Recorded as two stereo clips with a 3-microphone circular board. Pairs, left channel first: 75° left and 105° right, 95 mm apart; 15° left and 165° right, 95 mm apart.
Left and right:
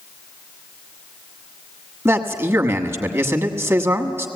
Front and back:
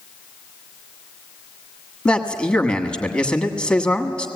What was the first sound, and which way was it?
A man speaking, 60° right.